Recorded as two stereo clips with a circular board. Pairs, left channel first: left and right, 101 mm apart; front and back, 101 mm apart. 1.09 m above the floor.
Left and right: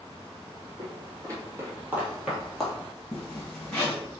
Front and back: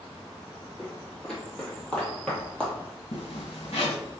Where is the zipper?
10° left, 2.0 m.